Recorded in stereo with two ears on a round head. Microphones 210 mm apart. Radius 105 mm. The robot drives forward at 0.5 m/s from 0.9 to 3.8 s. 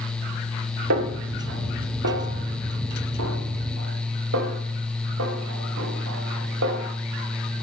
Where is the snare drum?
70° right (ahead or behind), 2 m; by 6.8 s 60° right (ahead or behind), 2 m.